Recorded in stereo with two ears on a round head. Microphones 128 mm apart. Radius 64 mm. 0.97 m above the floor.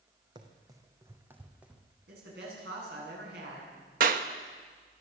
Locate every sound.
0.3 s running footsteps: 30° right (ahead or behind), 2.5 m; by 1.8 s 5° right (ahead or behind), 2.5 m
2.1 s a man speaking: 85° right, 9.5 m
4.0 s a clap: 60° right (ahead or behind), 1.2 m